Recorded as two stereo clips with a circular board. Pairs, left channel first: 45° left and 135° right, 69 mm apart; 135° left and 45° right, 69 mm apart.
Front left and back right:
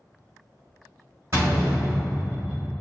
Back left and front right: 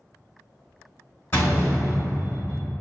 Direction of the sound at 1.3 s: 175° right.